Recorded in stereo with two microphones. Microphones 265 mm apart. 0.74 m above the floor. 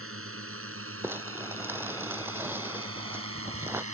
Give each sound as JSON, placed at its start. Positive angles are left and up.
{"t": 0.0, "sound": "a drone", "side_deg": -55}
{"t": 1.0, "sound": "crumpling", "side_deg": -10}